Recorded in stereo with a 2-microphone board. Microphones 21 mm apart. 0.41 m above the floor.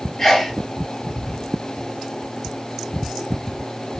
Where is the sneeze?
20° left (ahead or behind), 1.6 m.